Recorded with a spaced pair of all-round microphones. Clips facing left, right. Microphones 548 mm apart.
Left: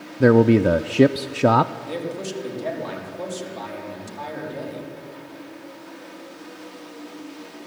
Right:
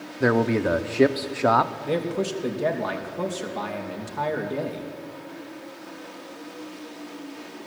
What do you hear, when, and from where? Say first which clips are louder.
0.2 s a man speaking: left 7 dB; 55° left (ahead or behind), 0.6 m
1.9 s a man speaking: right 4 dB; 75° right (ahead or behind), 3 m